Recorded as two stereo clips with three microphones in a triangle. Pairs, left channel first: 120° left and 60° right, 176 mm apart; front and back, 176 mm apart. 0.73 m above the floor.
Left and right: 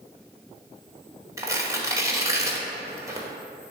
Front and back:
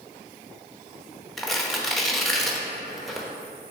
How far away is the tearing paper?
About 0.9 m.